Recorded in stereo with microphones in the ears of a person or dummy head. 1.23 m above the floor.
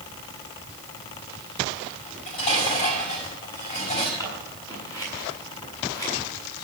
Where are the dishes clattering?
40° left (ahead or behind), 5.5 m.